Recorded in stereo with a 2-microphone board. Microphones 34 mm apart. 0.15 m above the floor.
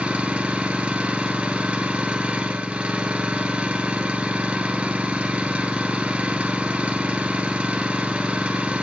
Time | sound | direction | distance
0.0 | an engine running | 30° right (ahead or behind) | 1.2 m